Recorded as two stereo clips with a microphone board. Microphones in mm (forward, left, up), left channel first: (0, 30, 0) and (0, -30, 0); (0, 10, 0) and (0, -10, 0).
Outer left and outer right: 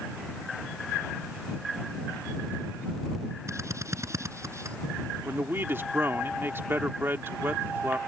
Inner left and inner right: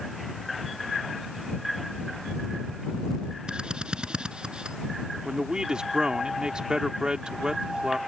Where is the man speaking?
40° right (ahead or behind).